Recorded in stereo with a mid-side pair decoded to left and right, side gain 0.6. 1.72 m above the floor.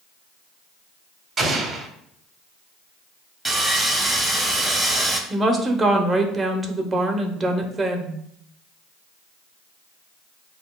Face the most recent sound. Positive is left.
turn(degrees=-25)